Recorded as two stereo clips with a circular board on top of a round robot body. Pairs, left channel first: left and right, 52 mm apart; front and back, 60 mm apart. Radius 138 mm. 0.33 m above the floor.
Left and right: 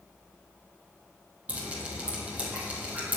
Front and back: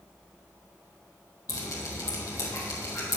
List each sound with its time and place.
1.5 s dripping: 30° right, 3 m